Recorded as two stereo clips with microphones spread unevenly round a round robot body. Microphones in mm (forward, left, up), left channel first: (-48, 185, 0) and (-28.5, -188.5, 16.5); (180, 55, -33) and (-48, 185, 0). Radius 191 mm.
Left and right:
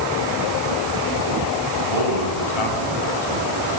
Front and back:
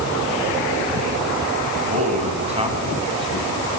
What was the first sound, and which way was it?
A man speaking, 90° left.